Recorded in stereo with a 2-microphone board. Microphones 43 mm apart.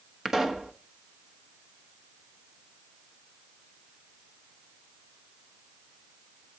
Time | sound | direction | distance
0.2 | a pop | 10° right (ahead or behind) | 1.1 m